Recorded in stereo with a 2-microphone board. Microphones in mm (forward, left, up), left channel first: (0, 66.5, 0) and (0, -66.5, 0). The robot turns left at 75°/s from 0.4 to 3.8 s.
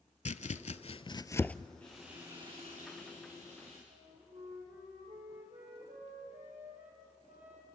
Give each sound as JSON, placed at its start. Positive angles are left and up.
{"t": 0.2, "sound": "chopping", "side_deg": 60, "distance_m": 0.5}
{"t": 1.8, "sound": "frying", "azimuth_deg": 10, "distance_m": 6.5}
{"t": 3.9, "sound": "a flute", "side_deg": -60, "distance_m": 5.0}